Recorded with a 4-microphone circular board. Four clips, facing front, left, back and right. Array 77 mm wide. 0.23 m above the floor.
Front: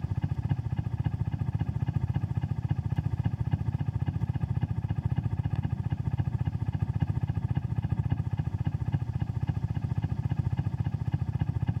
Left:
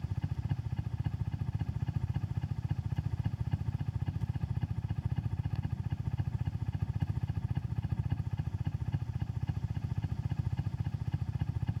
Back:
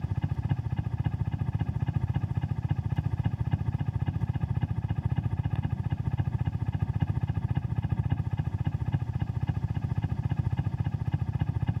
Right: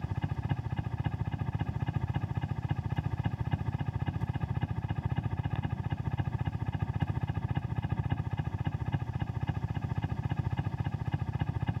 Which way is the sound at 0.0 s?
105° right.